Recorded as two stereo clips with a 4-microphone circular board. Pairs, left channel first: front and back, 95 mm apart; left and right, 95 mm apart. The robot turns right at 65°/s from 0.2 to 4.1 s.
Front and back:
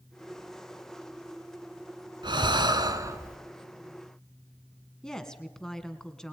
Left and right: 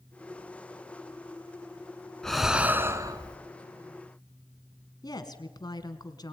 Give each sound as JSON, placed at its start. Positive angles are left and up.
{"t": 2.2, "sound": "breathing", "azimuth_deg": 170, "distance_m": 1.5}
{"t": 5.0, "sound": "a woman speaking", "azimuth_deg": 80, "distance_m": 2.0}